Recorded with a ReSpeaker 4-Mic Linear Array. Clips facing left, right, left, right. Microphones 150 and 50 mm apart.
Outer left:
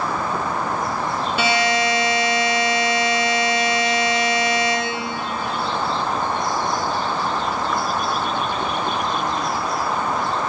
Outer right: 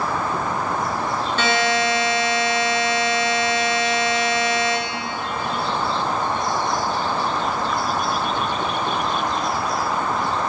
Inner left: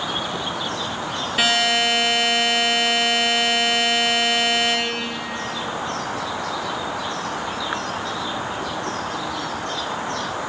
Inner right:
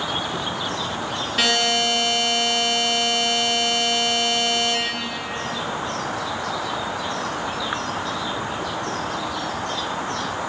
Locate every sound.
1.4 s a buzzer: 10° left (ahead or behind), 3 m